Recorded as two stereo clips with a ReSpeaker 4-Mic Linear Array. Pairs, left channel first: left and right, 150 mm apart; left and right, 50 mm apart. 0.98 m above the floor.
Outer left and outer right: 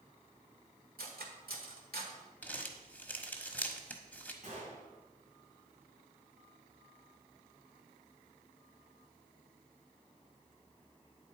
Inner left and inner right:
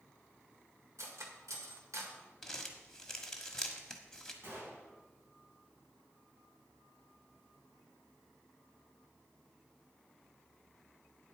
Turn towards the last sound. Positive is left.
turn(degrees=-55)  # may be behind; listen again after turning